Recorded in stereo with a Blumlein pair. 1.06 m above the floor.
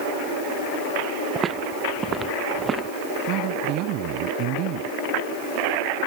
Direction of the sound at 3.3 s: 40° right.